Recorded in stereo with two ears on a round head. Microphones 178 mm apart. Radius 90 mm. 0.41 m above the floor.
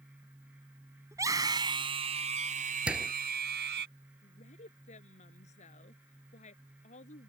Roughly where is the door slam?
Centre.